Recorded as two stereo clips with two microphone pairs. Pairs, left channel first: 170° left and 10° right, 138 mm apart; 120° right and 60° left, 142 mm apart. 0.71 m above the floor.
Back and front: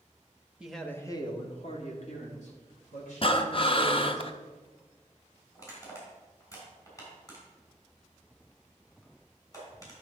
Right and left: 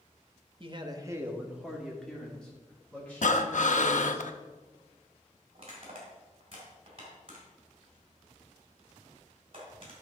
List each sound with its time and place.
0.6 s a man speaking: 65° left, 0.9 m; by 4.2 s 165° left, 4 m
3.2 s breathing: 145° right, 0.6 m
5.5 s crushing: 105° left, 3.5 m